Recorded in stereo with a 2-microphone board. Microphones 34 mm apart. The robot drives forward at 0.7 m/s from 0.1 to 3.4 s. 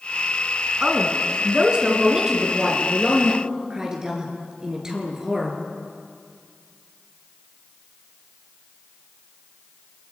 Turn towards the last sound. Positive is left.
turn(degrees=-15)  # may be behind; listen again after turning